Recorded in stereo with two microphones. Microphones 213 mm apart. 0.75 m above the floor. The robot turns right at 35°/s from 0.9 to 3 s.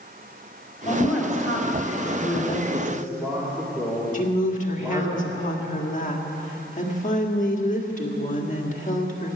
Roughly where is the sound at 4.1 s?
Left.